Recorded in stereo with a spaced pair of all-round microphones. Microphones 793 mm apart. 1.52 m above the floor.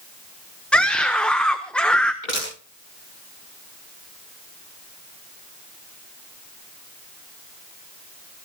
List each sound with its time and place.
0.7 s a scream: centre (ahead or behind), 1.1 m
2.2 s crushing: 80° left, 9.5 m